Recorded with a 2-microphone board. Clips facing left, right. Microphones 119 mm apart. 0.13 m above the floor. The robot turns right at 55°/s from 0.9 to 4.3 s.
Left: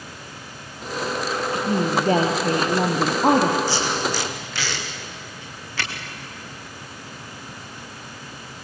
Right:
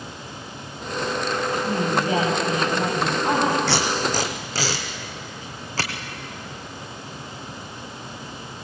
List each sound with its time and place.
1.5 s a woman speaking: 15° left, 3 m; by 3.6 s 125° left, 3 m
3.7 s tape being pulled: 75° right (ahead or behind), 3 m; by 5.9 s 40° right (ahead or behind), 3 m